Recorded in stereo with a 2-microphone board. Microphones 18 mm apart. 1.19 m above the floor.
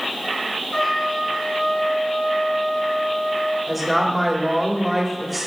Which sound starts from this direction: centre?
A woman speaking, at 3.7 s.